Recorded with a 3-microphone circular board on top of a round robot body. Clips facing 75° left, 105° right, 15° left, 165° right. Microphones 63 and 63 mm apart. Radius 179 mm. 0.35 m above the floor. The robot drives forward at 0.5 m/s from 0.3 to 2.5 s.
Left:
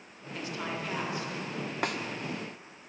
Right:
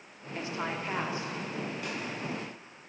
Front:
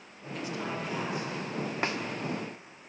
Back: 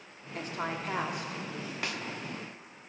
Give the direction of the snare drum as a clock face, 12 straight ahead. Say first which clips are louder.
Left 5 dB, front 5 dB; 10 o'clock.